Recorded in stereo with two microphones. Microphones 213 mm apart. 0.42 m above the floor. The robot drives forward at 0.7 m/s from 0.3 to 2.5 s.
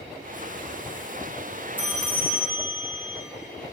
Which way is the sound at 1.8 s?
10° right (ahead or behind).